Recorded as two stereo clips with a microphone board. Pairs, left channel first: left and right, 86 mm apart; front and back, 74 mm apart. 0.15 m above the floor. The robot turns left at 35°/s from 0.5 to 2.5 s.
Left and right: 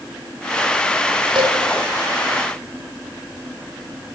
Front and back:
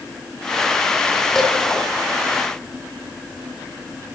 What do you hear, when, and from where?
1.4 s dishes clattering: 85° right, 3.5 m; by 1.6 s 90° right, 3.5 m